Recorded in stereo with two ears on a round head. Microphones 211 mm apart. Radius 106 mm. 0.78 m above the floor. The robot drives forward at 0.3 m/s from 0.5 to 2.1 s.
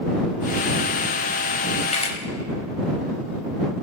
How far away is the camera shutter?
About 4 m.